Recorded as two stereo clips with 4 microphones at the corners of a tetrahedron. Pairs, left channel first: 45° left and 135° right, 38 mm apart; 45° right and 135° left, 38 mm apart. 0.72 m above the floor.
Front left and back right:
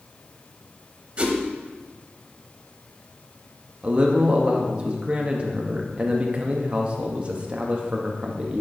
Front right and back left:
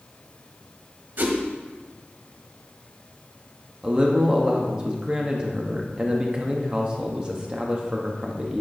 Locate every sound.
1.2 s a whoosh: 165° left, 0.9 m
3.8 s a man speaking: 175° right, 0.9 m